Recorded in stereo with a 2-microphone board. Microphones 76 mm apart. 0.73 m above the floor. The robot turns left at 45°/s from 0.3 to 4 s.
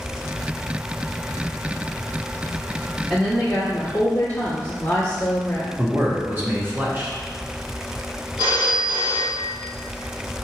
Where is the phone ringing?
70° right (ahead or behind), 1.1 m.